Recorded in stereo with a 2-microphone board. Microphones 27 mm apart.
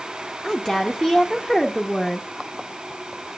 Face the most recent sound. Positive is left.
turn(degrees=0)  # may be behind; listen again after turning